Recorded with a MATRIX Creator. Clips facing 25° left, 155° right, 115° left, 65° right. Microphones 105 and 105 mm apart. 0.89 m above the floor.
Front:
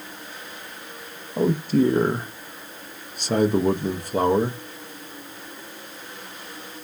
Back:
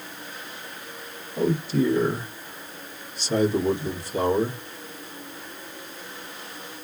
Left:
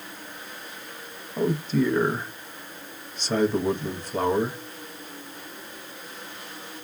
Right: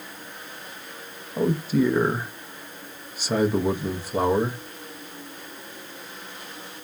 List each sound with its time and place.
1.4 s a man speaking: 10° left, 0.7 m